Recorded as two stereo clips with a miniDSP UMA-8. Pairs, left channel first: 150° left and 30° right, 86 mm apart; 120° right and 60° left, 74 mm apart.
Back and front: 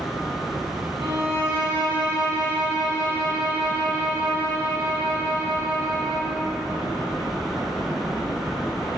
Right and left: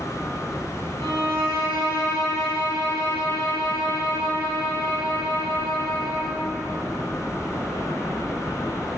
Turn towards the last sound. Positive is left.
turn(degrees=-90)